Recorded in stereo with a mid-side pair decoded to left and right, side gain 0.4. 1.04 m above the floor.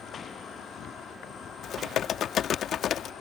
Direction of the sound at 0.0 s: 70° left.